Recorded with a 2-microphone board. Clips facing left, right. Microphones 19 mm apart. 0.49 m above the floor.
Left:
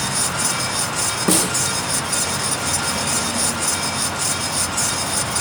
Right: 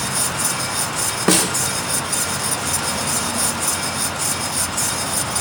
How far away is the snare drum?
About 1.0 m.